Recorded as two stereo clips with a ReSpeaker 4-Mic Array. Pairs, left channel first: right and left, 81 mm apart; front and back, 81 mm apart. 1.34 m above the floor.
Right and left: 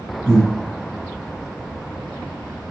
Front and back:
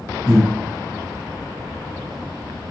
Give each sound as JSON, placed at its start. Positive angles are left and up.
{"t": 0.3, "sound": "breathing", "azimuth_deg": 140, "distance_m": 2.5}